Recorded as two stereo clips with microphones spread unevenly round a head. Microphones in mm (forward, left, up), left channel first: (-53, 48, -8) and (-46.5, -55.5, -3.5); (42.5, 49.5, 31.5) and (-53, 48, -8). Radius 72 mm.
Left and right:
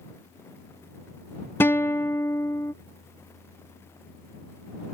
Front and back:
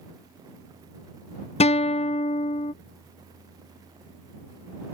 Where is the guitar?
25° left.